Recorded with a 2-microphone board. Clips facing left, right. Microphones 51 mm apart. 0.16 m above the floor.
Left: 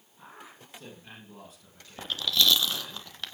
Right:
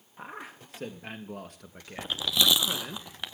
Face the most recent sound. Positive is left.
turn(degrees=-15)  # may be behind; listen again after turning